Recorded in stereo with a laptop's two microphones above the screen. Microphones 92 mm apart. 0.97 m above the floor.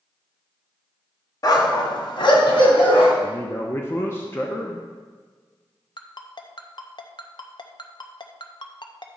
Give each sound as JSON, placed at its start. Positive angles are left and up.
{"t": 1.4, "sound": "a dog barking", "side_deg": 45, "distance_m": 1.3}
{"t": 3.2, "sound": "a man speaking", "side_deg": 25, "distance_m": 0.9}
{"t": 6.0, "sound": "a ringtone", "side_deg": 55, "distance_m": 0.7}